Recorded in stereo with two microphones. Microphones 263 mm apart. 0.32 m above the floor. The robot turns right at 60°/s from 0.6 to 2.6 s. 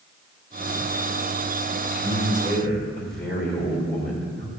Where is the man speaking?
50° left, 1.8 m; by 4.5 s 95° left, 1.8 m.